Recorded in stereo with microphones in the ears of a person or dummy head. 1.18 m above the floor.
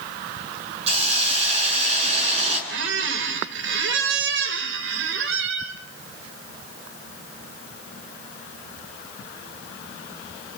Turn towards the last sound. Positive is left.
turn(degrees=-75)  # may be behind; listen again after turning